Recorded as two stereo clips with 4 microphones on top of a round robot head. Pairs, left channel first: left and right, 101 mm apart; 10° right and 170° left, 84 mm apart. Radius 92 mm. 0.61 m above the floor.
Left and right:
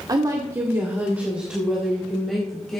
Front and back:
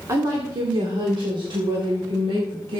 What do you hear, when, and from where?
0.1 s a woman speaking: 135° right, 2 m; by 2.8 s 175° left, 4.5 m